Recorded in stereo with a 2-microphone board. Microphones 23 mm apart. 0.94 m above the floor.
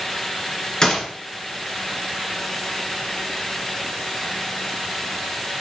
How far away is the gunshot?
About 2.5 m.